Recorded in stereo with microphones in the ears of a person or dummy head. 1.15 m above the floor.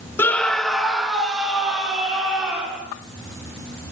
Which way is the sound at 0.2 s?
10° left (ahead or behind).